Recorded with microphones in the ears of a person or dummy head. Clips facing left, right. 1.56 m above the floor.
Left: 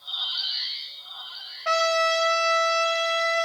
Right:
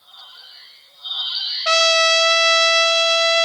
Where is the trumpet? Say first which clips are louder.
Right 4 dB; 55° right (ahead or behind), 0.6 m.